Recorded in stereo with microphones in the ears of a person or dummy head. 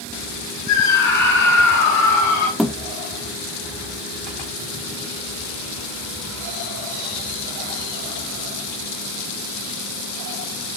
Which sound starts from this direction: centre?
A thud, at 2.6 s.